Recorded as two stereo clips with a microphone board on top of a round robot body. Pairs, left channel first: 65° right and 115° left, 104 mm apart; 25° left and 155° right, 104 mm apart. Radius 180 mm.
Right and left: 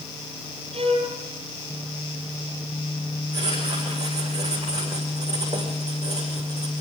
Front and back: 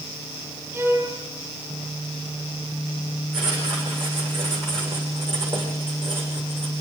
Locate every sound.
0.7 s a violin: 140° left, 8 m
3.3 s writing: 165° left, 8.5 m